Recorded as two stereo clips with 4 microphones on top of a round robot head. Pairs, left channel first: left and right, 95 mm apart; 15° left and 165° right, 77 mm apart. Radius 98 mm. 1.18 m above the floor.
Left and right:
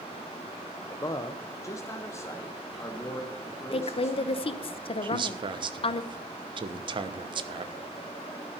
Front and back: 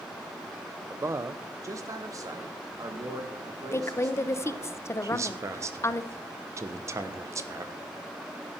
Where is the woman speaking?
70° left, 0.9 m.